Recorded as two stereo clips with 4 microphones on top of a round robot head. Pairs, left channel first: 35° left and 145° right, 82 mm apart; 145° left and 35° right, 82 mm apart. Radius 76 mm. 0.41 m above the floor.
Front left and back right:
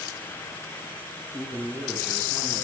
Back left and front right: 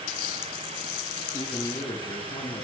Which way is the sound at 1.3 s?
100° left.